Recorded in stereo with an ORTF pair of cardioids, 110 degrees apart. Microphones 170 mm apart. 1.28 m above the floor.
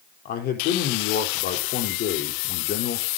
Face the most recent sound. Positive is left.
turn(degrees=70)